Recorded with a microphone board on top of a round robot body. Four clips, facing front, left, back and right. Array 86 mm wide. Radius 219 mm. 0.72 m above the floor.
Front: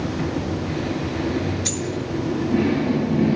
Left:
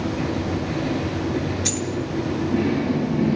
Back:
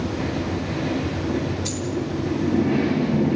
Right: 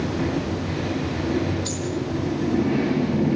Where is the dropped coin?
50° left, 7 m.